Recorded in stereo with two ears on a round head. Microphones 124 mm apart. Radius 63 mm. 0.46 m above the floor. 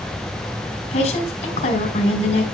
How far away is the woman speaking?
About 2.5 m.